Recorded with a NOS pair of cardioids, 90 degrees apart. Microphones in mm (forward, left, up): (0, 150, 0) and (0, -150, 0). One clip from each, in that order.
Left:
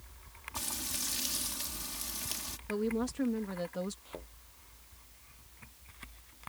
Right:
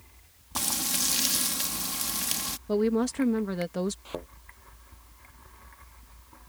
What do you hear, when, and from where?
0.6 s frying: 60° right
2.7 s a woman speaking: 55° right
4.0 s a thud: 65° right